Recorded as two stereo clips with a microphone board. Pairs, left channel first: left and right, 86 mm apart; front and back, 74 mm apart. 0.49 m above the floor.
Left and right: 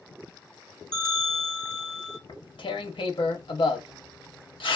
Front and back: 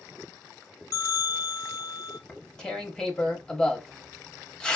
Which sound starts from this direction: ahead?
A bell, at 0.9 s.